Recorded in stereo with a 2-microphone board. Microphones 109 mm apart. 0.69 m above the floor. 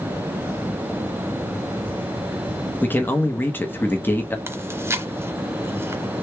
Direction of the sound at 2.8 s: 20° left (ahead or behind).